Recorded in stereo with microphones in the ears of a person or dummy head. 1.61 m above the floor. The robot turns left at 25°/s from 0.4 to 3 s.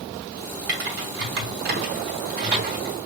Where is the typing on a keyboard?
65° right (ahead or behind), 0.9 m; by 3.1 s 35° right (ahead or behind), 0.9 m.